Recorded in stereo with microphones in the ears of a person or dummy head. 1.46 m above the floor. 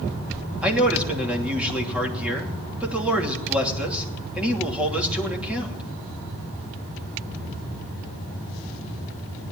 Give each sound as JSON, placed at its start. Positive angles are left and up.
{"t": 0.6, "sound": "a man speaking", "side_deg": -5, "distance_m": 2.5}